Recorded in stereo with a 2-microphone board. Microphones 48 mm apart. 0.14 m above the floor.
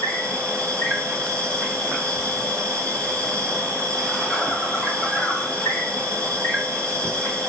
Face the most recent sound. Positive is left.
turn(degrees=15)  # may be behind; listen again after turning